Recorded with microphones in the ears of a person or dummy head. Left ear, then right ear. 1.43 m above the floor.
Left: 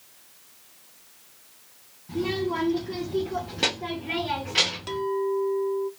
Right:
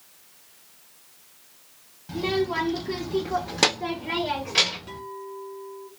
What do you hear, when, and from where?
2.1 s a child speaking: 60° right (ahead or behind), 0.8 m; by 5.0 s 15° right (ahead or behind), 1.3 m
4.9 s a clink: 45° left (ahead or behind), 0.6 m